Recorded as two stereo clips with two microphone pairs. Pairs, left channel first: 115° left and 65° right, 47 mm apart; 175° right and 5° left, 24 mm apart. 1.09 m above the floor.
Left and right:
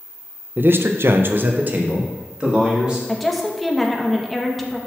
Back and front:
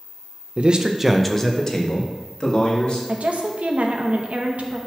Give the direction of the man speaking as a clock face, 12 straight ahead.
1 o'clock.